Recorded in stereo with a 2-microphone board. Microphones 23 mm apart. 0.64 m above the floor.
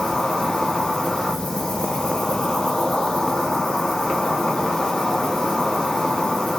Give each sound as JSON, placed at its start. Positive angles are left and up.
{"t": 0.0, "sound": "an insect", "side_deg": 20, "distance_m": 2.0}